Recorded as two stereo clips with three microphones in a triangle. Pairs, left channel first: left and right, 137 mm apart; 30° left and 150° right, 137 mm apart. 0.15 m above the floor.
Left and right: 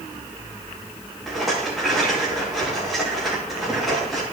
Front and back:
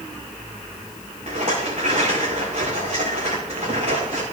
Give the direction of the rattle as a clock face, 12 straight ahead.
6 o'clock.